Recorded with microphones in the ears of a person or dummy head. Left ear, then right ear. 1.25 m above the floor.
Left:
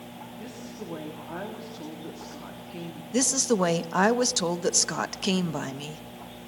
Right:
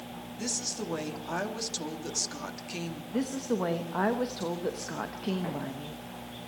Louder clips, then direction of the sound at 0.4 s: Right 10 dB; 80° right.